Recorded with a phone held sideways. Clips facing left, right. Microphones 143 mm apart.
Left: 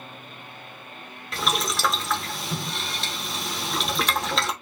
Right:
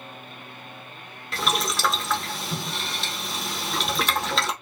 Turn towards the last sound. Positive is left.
turn(degrees=0)  # may be behind; listen again after turning